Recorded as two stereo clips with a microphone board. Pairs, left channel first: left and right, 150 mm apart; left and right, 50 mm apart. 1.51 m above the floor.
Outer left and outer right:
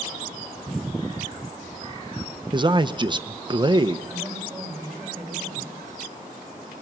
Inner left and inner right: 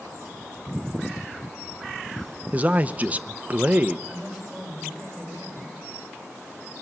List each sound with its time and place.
2.5 s a man speaking: 30° right (ahead or behind), 0.7 m
4.1 s a woman speaking: 5° right (ahead or behind), 9.5 m